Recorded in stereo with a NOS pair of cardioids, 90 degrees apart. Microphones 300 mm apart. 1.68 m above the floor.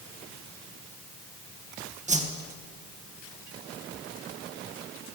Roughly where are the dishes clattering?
I don't hear dishes clattering.